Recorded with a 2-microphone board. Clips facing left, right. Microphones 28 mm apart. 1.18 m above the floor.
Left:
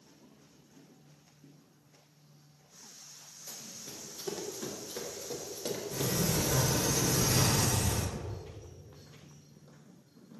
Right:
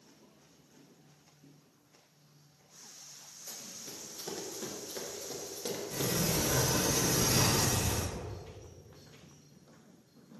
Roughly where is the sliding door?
Right.